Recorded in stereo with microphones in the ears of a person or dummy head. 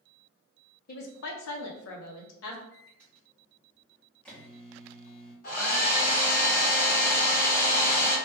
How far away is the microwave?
About 0.9 m.